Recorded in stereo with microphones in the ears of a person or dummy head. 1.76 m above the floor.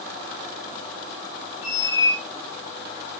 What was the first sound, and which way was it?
A squeak, 20° left (ahead or behind).